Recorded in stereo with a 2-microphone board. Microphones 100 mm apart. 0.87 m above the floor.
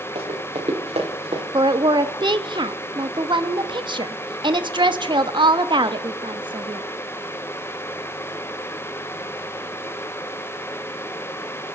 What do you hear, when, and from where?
0.1 s running footsteps: 75° right (ahead or behind), 5 m; by 1.4 s 80° right, 5 m
1.5 s a woman speaking: 50° right (ahead or behind), 1.4 m